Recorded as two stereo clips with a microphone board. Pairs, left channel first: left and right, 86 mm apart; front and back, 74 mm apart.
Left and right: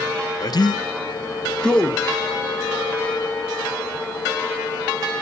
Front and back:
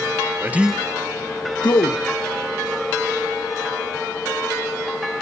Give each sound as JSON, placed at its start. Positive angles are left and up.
{"t": 0.4, "sound": "a man speaking", "azimuth_deg": 125, "distance_m": 0.7}